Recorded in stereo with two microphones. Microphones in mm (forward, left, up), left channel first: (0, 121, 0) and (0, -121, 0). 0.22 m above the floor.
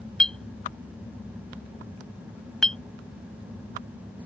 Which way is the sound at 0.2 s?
5° left (ahead or behind).